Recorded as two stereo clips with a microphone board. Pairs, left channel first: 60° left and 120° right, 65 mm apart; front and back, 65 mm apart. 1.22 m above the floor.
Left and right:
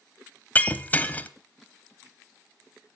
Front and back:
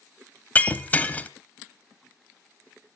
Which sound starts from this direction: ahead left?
Breaking glass, at 0.6 s.